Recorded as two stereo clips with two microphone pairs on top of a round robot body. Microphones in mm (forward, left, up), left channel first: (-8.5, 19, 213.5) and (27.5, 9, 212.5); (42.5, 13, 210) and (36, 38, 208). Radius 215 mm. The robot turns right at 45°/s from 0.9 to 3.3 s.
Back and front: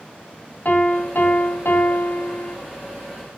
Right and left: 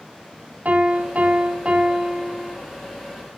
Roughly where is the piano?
Behind left.